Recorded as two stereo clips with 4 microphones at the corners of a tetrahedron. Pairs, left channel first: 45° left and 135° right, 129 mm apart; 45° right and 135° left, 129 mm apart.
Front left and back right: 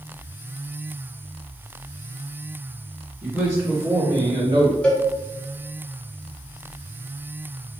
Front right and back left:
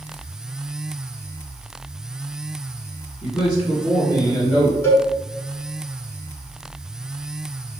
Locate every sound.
3.2 s a man speaking: 40° right, 2.0 m; by 4.7 s 110° right, 2 m
4.8 s a cowbell: 25° right, 0.9 m